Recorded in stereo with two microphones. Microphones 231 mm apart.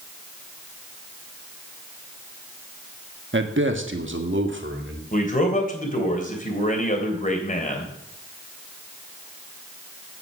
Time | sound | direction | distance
3.3 | a man speaking | 55° right (ahead or behind) | 1.3 m
5.1 | a man speaking | 35° left (ahead or behind) | 3 m